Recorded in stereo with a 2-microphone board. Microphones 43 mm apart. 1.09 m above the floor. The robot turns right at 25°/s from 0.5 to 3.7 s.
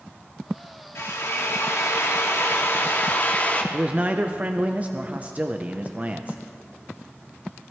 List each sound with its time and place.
0.9 s a drill: 75° left, 1.2 m; by 3.6 s 140° left, 1.2 m
3.7 s a man speaking: 35° right (ahead or behind), 0.6 m